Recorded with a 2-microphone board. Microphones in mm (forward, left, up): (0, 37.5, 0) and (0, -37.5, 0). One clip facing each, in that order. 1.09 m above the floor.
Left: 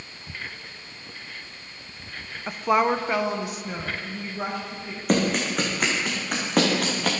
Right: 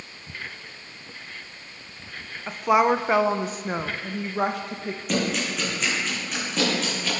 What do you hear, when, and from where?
2.5 s a woman speaking: 5° left (ahead or behind), 0.6 m; by 5.0 s 65° right (ahead or behind), 1.3 m
5.1 s running footsteps: 45° left (ahead or behind), 3.5 m; by 7.1 s 65° left (ahead or behind), 3.5 m